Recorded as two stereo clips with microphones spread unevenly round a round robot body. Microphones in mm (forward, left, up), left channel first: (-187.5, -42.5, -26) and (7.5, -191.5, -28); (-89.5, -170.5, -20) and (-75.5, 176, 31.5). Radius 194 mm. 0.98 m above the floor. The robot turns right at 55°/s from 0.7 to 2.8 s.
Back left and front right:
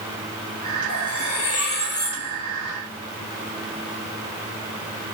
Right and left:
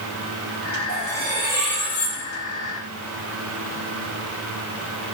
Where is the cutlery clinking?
135° left, 3 m; by 2.2 s 150° right, 3 m.